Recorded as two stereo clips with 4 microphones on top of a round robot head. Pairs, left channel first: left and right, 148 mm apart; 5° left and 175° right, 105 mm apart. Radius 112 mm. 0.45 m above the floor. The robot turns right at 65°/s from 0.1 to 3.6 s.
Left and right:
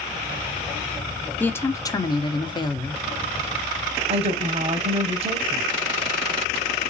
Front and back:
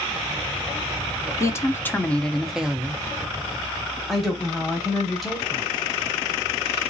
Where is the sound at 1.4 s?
25° left, 0.8 m; by 3.0 s 130° left, 0.8 m.